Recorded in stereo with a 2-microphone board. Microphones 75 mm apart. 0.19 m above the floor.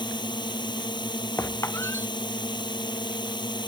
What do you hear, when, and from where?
0.0 s a drone: 70° left (ahead or behind)
1.4 s a squeak: 35° left (ahead or behind)